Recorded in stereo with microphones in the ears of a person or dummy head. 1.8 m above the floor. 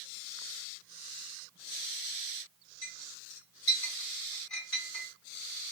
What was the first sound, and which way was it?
A clink, 60° left (ahead or behind).